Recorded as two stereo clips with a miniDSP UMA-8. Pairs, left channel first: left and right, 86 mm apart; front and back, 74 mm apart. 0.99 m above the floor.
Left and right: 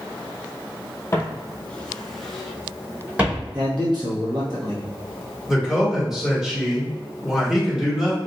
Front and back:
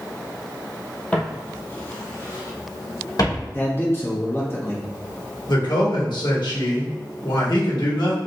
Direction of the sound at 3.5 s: 55° right.